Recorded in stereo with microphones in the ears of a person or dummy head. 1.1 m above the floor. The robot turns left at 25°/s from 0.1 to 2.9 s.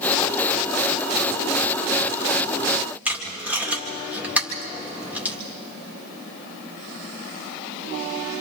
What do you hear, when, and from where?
3.0 s tape being pulled: 10° right (ahead or behind), 1.9 m